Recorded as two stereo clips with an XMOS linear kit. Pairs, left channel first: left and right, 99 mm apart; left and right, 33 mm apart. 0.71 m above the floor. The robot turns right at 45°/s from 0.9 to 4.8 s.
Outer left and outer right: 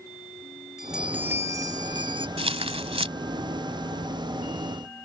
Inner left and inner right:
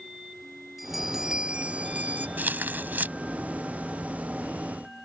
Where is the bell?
175° right; by 2.3 s 115° right.